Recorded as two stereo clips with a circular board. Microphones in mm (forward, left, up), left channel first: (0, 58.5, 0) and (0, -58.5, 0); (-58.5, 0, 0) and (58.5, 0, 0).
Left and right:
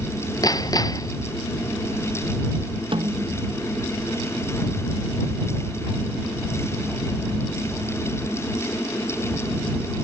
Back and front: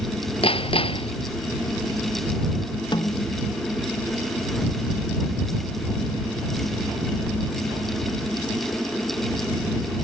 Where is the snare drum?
130° right.